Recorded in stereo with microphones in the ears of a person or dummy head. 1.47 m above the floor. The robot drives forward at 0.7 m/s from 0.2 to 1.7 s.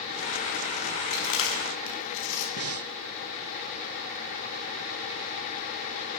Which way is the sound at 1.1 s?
70° left (ahead or behind).